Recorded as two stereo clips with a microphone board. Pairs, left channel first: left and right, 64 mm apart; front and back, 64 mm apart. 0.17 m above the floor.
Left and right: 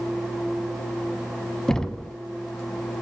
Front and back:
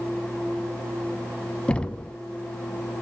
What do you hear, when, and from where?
1.7 s knocking: 30° left, 0.7 m